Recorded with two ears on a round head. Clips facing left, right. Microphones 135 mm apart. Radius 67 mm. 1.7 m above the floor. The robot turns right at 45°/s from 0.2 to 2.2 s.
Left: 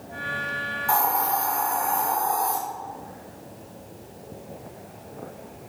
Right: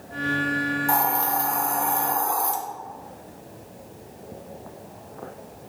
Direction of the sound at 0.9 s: 165° right.